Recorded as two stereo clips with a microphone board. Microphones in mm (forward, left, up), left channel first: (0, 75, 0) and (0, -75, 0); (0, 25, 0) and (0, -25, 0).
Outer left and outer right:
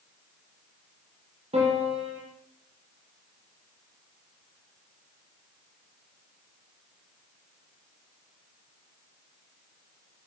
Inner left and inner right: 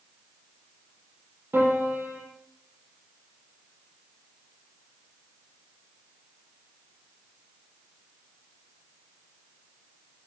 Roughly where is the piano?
Right.